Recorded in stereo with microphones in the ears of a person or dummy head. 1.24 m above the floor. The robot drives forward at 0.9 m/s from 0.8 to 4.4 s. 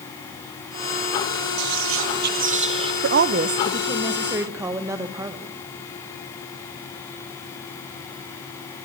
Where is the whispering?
55° right (ahead or behind), 0.6 m; by 2.9 s 30° right (ahead or behind), 1.1 m.